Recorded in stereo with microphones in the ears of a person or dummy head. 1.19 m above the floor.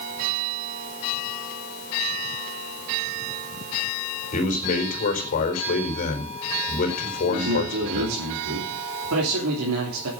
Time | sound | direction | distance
4.3 | a man speaking | 40° left (ahead or behind) | 4 m
7.3 | a man speaking | 80° right | 3.5 m